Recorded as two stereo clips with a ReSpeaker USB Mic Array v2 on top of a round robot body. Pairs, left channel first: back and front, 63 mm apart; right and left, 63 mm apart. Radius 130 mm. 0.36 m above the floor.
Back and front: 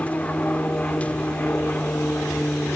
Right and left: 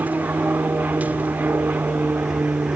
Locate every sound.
0.0 s an aircraft: 130° left